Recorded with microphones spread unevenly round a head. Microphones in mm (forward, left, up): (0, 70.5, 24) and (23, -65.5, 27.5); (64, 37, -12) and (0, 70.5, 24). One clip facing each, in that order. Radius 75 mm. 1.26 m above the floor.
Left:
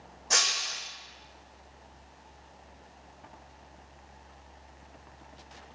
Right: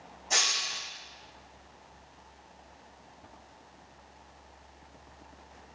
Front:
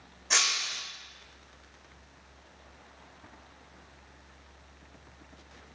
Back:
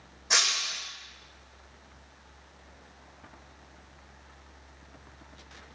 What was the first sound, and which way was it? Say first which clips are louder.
Breaking glass: left 1 dB, back 1 dB; 75° left.